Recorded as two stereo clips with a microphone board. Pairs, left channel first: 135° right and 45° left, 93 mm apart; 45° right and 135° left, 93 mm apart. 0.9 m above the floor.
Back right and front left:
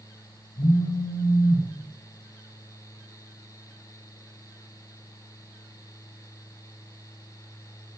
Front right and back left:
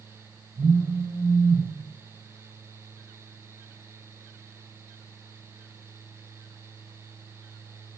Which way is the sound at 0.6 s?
175° right.